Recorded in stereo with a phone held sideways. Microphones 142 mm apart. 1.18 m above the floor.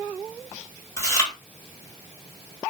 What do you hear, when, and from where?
1.0 s chewing: 20° left (ahead or behind), 1.4 m